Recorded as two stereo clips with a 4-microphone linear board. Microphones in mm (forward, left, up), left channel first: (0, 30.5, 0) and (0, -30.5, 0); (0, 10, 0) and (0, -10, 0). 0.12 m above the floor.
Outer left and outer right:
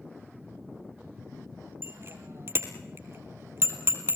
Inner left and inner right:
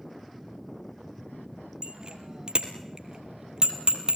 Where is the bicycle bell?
45° right (ahead or behind), 2.5 m.